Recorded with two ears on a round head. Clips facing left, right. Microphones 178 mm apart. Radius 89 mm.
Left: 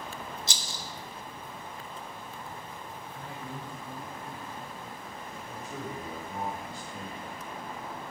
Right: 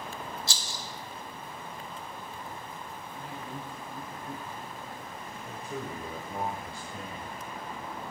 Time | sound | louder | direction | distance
0.5 | a rattle | even | 20° left (ahead or behind) | 0.7 m
3.1 | a man speaking | right 1 dB | 5° right (ahead or behind) | 5.5 m
5.5 | a man speaking | right 2 dB | 50° right (ahead or behind) | 2 m